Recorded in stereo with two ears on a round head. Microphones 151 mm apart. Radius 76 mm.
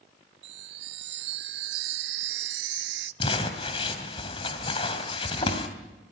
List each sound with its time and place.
0.4 s a chime: 80° right, 0.8 m
3.2 s crumpling: 35° left (ahead or behind), 3 m